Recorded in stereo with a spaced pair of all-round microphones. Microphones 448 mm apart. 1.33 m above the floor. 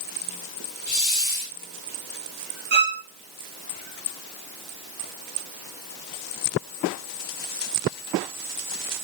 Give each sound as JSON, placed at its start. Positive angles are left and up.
{"t": 0.9, "sound": "a hiss", "side_deg": 75, "distance_m": 1.9}
{"t": 2.7, "sound": "a violin", "side_deg": -85, "distance_m": 0.8}